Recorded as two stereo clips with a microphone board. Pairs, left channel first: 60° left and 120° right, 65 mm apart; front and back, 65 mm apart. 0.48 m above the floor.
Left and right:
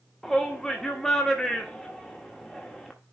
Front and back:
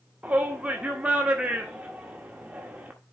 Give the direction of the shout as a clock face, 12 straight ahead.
8 o'clock.